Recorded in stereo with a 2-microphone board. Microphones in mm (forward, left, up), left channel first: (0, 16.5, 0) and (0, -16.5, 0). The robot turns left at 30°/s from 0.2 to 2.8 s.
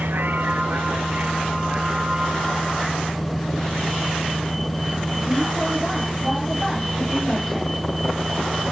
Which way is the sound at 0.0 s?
100° right.